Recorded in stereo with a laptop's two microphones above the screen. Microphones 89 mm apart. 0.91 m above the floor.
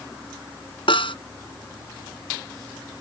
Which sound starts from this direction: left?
A snare drum, at 0.9 s.